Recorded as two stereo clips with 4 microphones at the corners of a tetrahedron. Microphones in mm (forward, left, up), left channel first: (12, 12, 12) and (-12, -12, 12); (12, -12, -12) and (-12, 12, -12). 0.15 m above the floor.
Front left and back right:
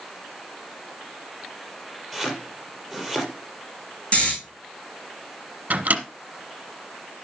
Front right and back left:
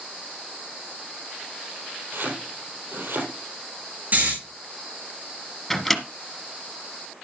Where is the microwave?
125° right, 1.4 m.